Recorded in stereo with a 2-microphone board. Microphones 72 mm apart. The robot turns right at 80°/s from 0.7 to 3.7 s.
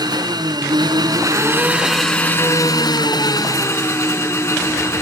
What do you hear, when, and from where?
0.0 s an engine running: 100° right, 4 m; by 5.0 s 140° left, 4 m